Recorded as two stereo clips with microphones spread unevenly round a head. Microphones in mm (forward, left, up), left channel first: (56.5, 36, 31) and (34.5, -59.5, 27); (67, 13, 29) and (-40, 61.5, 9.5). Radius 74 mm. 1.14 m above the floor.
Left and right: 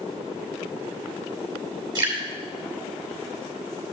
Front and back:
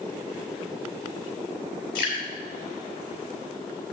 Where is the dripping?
60° right, 5 m.